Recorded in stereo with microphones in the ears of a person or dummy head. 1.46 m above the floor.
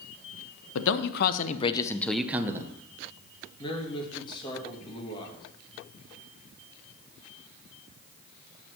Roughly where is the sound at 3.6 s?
Left.